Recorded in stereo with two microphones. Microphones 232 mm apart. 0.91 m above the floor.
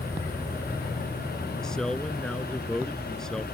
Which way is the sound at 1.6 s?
5° left (ahead or behind).